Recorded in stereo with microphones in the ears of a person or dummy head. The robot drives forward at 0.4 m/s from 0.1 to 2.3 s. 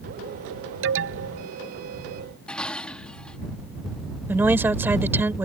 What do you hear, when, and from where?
0.8 s an alarm: 70° right (ahead or behind)
2.5 s dishes clattering: centre (ahead or behind)
4.3 s a woman speaking: 5° right (ahead or behind)